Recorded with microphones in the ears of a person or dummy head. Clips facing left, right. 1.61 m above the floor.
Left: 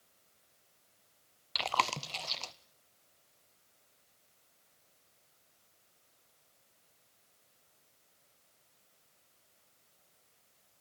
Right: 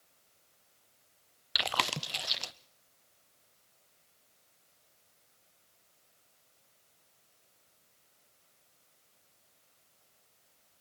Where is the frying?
No frying in this recording.